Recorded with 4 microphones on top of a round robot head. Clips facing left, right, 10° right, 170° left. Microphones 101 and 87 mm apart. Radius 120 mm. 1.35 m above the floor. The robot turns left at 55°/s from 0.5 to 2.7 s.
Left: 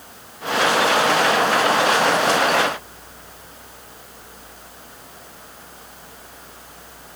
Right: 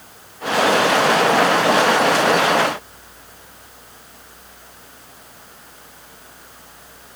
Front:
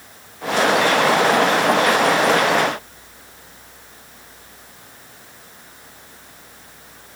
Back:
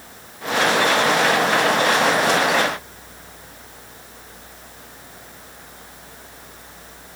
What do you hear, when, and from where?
Only background noise.